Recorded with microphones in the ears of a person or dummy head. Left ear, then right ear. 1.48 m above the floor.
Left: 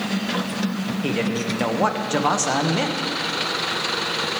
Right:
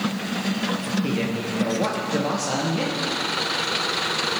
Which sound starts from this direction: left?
A man speaking, at 1.0 s.